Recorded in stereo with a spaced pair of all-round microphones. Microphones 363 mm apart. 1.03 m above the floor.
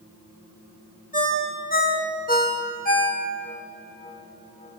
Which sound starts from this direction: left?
A ringtone, at 1.1 s.